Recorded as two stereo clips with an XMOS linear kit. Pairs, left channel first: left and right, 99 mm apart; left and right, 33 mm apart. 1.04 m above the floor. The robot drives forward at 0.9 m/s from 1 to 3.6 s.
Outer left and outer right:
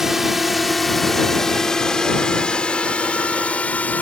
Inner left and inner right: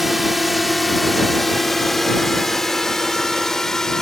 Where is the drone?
5° right (ahead or behind); by 4.0 s 15° left (ahead or behind).